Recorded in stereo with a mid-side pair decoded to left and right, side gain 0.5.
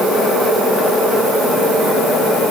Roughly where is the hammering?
No hammering in this recording.